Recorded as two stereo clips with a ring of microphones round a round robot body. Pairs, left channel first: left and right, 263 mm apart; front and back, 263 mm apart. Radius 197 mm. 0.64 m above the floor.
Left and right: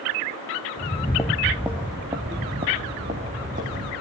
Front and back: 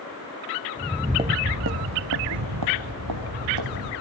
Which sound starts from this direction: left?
Footsteps, at 0.8 s.